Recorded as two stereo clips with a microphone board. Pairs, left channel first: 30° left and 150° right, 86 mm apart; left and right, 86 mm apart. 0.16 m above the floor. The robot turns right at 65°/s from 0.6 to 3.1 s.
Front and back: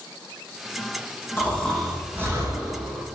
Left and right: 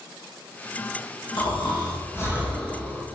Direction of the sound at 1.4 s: 90° left.